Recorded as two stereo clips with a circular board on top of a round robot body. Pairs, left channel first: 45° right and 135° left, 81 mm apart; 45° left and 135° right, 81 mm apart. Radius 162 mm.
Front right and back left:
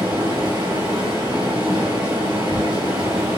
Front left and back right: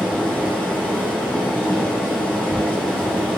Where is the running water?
115° left, 1.4 m.